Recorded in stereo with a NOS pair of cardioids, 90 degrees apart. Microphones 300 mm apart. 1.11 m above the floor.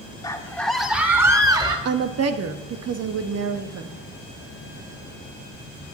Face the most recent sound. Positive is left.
turn(degrees=-55)